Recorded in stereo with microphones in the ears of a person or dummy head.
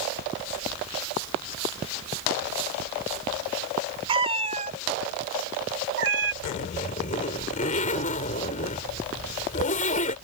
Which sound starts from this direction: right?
A cat meowing, at 4.1 s.